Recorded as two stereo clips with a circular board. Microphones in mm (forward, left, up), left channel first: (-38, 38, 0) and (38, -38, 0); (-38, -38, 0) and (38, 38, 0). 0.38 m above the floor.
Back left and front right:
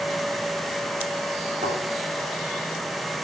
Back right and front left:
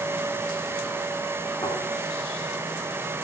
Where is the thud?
75° right, 8 m.